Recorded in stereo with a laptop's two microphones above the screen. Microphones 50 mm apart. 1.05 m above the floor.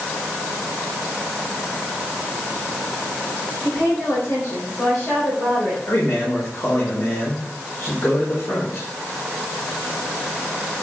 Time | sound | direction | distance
3.6 | a woman speaking | 70° left (ahead or behind) | 4 m
5.9 | a man speaking | 65° left (ahead or behind) | 4.5 m